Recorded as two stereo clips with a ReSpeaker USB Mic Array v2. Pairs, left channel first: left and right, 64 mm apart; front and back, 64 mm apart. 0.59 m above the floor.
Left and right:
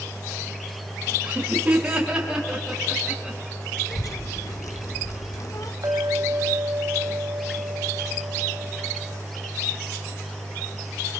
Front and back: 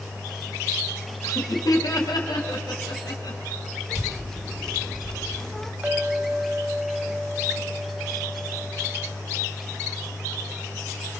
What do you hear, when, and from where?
1.2 s laughter: 25° right, 4 m; by 3.4 s 5° right, 6 m
3.9 s a child speaking: 80° left, 1.2 m
5.8 s a clink: 115° right, 2.5 m